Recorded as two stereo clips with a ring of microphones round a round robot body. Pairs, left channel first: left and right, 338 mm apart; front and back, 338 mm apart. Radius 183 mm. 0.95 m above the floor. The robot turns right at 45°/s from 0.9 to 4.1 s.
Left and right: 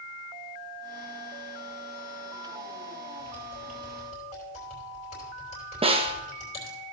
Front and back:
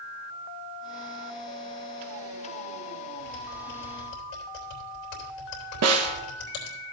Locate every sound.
3.2 s typing on a keyboard: 25° right, 3.5 m; by 6.8 s 15° left, 3.5 m
5.8 s a snare drum: 160° right, 1.1 m